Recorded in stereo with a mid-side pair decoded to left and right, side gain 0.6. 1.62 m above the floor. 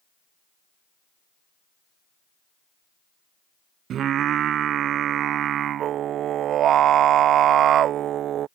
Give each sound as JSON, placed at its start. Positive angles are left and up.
{"t": 3.9, "sound": "singing", "azimuth_deg": -55}